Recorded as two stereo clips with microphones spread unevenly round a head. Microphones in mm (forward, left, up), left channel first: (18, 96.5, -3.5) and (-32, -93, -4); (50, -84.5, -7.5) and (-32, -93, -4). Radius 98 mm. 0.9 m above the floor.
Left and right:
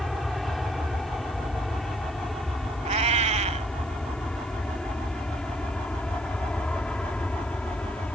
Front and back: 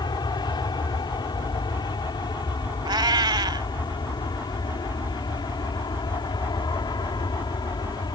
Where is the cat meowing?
160° right.